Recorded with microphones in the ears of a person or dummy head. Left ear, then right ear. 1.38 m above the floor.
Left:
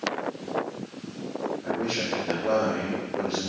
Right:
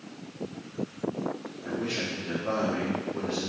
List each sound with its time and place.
1.6 s a man speaking: 20° right (ahead or behind), 2 m